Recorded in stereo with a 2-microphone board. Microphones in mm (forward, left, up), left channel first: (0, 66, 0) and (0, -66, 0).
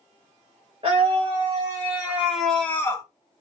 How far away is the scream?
About 2.5 m.